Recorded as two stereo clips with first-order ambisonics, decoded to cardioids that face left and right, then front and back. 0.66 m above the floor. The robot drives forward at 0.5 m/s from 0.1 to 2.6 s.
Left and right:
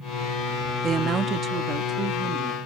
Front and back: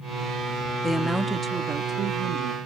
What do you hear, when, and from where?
0.8 s a woman speaking: 70° right; by 2.6 s 155° right